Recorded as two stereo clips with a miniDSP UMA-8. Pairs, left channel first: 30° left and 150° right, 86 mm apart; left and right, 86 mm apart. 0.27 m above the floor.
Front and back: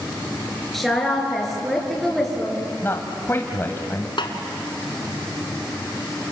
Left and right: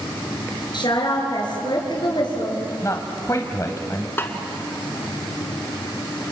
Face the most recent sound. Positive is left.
turn(degrees=30)